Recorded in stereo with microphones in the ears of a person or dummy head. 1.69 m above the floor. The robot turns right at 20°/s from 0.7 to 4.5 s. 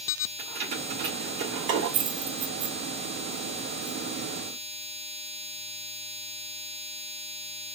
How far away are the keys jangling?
About 1.5 m.